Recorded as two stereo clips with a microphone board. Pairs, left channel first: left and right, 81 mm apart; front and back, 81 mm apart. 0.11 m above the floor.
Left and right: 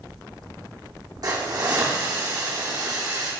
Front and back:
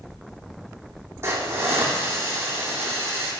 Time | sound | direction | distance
1.2 | a hiss | 120° right | 2.5 m